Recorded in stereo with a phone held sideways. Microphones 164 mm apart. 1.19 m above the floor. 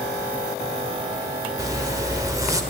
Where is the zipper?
20° right (ahead or behind), 1.1 m.